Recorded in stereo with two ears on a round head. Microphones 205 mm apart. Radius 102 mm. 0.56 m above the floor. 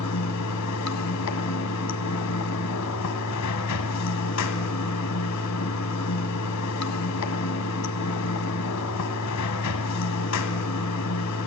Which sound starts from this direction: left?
Running water, at 0.0 s.